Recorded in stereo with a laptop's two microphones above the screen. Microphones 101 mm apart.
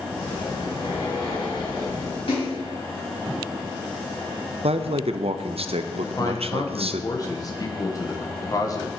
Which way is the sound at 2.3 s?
65° left (ahead or behind).